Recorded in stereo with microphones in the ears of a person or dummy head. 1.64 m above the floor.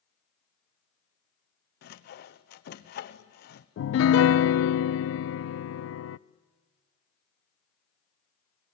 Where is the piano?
75° left (ahead or behind), 0.5 m.